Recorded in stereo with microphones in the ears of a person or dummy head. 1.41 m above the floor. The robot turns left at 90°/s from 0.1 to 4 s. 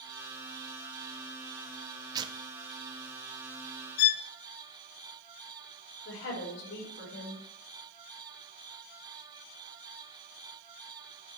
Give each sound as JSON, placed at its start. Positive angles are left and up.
{"t": 2.1, "sound": "tearing paper", "side_deg": -20, "distance_m": 0.5}
{"t": 4.0, "sound": "a violin", "side_deg": 60, "distance_m": 1.1}
{"t": 6.0, "sound": "a woman speaking", "side_deg": 75, "distance_m": 4.0}